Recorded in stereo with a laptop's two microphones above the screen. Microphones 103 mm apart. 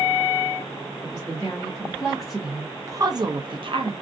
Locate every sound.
1.0 s a woman speaking: 25° left (ahead or behind), 1.1 m; by 3.9 s 55° right (ahead or behind), 0.8 m